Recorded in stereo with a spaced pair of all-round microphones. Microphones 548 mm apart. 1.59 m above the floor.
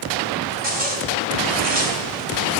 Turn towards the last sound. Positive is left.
turn(degrees=-75)  # may be behind; listen again after turning